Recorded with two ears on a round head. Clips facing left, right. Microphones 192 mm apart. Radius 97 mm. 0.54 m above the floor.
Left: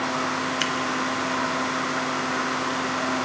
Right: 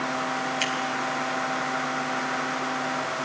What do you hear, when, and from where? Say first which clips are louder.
0.6 s scissors: left 2 dB; 15° left (ahead or behind), 0.9 m